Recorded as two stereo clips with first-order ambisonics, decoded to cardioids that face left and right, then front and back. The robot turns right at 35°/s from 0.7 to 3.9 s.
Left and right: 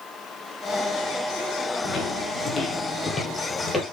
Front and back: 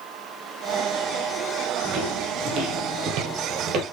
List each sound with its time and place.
1.8 s footsteps: 140° left, 4 m; by 3.8 s 170° left, 2.5 m